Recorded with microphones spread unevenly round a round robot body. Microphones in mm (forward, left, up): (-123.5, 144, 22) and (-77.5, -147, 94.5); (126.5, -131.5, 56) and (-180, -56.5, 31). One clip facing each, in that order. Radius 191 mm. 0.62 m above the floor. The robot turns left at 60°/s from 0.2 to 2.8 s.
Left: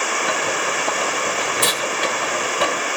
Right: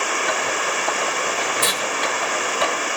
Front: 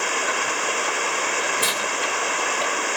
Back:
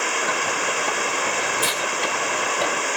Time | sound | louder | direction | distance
1.6 | tearing paper | left 2 dB, back 1 dB | 55° left | 1.7 m